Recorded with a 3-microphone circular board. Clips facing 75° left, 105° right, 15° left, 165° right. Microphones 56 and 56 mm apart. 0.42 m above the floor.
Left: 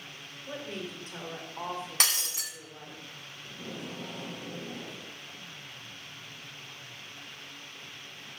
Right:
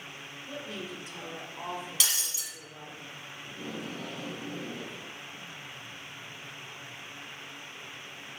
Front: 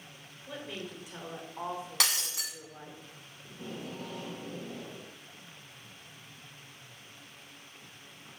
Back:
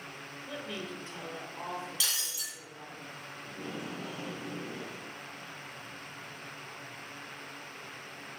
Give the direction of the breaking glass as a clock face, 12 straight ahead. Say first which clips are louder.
Left 2 dB, front 4 dB; 11 o'clock.